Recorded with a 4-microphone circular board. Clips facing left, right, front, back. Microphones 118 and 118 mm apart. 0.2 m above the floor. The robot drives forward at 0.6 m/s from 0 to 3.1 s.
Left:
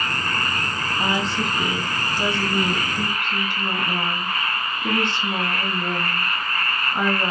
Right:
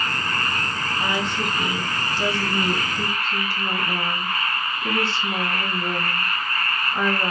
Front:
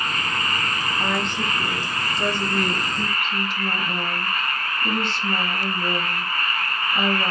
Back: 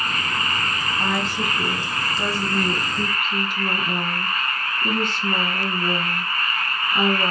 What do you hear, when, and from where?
1.0 s a woman speaking: 85° left, 1.1 m; by 7.3 s 155° left, 1.6 m